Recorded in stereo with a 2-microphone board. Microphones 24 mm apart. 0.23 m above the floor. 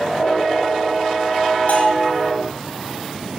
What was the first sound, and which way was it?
A bell, 75° left (ahead or behind).